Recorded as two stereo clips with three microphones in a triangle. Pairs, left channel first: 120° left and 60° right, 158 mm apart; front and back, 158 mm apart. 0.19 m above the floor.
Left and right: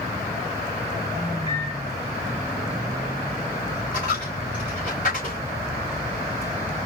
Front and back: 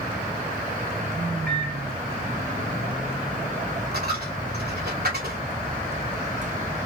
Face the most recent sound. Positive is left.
turn(degrees=155)